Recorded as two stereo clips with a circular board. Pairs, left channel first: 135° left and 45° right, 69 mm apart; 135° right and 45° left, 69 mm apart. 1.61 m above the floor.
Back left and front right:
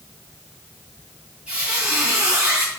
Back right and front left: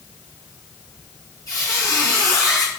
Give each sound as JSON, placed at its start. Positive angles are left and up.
{"t": 1.5, "sound": "a squeak", "azimuth_deg": -120, "distance_m": 1.6}